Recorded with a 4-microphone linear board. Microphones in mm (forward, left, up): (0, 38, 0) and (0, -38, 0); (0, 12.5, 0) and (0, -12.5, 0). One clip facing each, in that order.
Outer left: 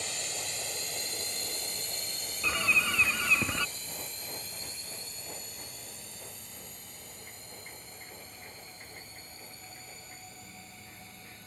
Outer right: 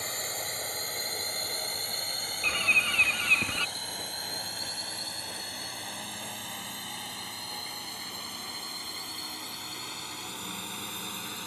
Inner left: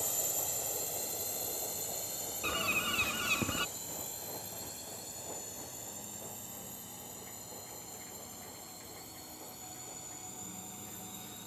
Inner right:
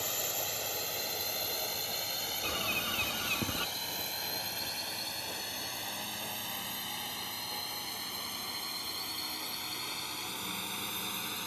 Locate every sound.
0.0 s a drone: 40° right (ahead or behind); by 11.5 s 80° right
2.4 s a bird: 10° left (ahead or behind)